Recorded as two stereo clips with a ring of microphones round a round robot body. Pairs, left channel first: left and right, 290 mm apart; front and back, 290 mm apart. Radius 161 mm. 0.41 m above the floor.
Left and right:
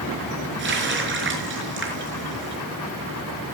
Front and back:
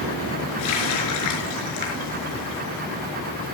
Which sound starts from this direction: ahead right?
A running tap, at 0.6 s.